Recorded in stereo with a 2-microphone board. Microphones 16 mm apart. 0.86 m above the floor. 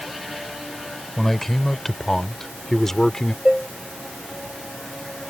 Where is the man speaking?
20° left (ahead or behind); by 3.4 s 30° left (ahead or behind).